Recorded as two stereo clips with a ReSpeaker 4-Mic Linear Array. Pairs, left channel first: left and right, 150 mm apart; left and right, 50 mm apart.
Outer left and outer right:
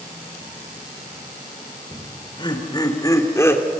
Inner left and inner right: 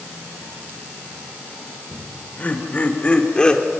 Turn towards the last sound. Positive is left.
turn(degrees=15)  # may be behind; listen again after turning